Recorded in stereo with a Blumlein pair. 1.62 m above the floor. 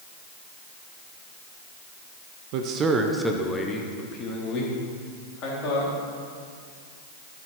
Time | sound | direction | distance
2.5 | a man speaking | 45° right | 1.1 m